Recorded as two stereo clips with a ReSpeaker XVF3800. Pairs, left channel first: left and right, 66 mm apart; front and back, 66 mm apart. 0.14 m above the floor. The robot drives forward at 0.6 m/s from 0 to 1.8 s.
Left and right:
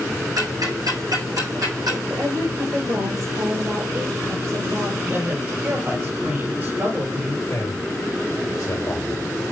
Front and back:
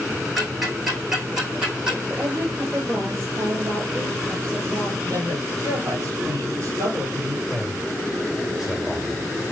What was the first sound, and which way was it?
Ticking, 90° right.